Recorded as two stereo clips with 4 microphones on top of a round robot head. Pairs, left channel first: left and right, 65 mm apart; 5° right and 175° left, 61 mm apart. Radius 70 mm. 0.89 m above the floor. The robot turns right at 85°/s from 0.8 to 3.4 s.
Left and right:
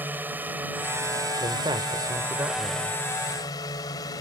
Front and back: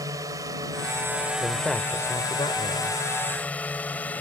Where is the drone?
150° right; by 4.2 s 60° left.